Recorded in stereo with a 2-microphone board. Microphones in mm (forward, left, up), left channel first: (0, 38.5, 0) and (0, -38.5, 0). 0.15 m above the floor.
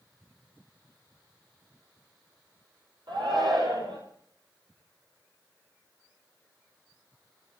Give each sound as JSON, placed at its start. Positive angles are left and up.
{"t": 3.1, "sound": "a shout", "side_deg": -75, "distance_m": 5.5}